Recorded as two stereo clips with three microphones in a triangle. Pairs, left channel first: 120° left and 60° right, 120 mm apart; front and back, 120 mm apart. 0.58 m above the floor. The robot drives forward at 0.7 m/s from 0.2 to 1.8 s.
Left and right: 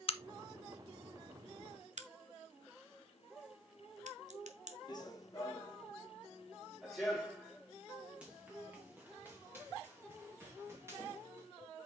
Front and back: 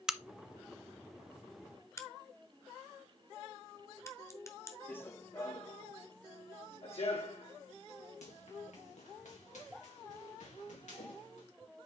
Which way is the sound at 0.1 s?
95° left.